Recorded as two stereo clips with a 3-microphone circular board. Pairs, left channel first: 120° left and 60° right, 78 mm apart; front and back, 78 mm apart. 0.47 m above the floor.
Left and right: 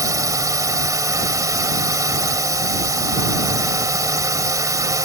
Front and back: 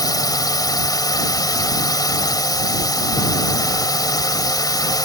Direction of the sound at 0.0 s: 25° right.